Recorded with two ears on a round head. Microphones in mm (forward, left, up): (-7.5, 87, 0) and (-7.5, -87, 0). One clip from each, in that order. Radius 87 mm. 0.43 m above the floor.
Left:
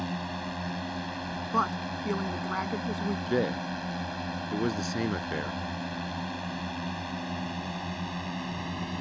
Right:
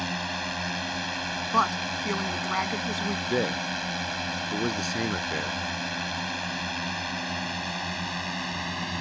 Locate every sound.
0.0 s a drone: 60° right (ahead or behind); by 9.0 s 45° right (ahead or behind)
1.5 s a woman speaking: 75° right (ahead or behind)
3.3 s a man speaking: 20° right (ahead or behind)